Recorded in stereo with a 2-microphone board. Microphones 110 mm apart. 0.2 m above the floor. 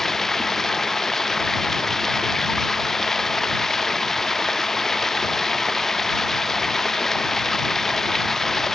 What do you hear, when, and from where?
0.0 s running water: centre (ahead or behind)